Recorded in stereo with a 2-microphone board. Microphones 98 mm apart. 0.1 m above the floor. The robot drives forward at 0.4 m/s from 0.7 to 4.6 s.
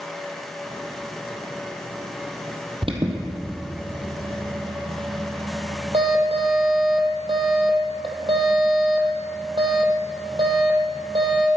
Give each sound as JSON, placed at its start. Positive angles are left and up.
{"t": 2.8, "sound": "an alarm", "side_deg": -65, "distance_m": 2.0}